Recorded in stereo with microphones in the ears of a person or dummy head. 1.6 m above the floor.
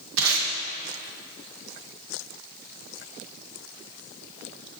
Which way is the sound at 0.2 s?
80° right.